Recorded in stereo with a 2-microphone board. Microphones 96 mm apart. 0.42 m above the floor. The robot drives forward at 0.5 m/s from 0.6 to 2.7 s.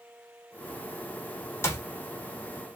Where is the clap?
25° left (ahead or behind), 1.0 m; by 1.9 s 30° left (ahead or behind), 1.0 m.